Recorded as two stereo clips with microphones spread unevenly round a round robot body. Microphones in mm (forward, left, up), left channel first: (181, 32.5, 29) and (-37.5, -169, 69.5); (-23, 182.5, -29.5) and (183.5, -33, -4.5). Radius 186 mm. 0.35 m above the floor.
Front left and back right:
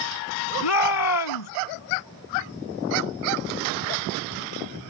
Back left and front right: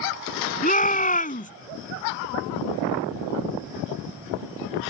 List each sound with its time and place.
0.6 s a shout: 70° left